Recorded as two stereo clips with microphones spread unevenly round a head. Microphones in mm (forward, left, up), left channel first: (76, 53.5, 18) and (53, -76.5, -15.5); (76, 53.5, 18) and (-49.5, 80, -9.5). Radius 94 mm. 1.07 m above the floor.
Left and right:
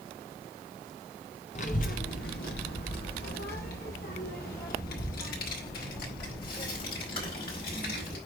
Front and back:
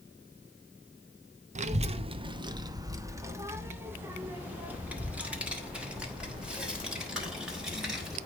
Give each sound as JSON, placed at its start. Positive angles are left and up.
{"t": 1.6, "sound": "a child speaking", "azimuth_deg": 135, "distance_m": 0.8}